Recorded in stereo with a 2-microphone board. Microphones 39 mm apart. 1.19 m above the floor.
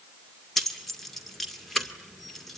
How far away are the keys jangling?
About 1.9 m.